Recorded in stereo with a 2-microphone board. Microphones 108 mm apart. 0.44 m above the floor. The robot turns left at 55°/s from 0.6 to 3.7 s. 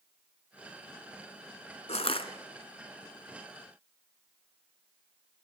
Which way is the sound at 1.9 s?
75° left (ahead or behind).